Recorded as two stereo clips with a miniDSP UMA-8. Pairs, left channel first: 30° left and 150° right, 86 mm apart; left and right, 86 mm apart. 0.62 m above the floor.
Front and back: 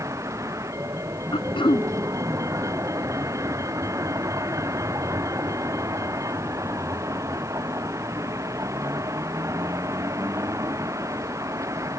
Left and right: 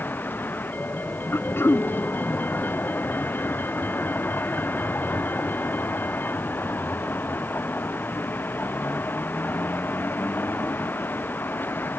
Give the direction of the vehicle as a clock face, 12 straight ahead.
7 o'clock.